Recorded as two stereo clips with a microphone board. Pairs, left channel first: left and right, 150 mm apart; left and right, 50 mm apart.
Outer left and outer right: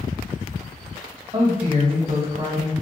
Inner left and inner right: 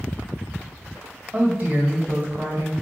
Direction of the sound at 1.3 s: 35° right (ahead or behind).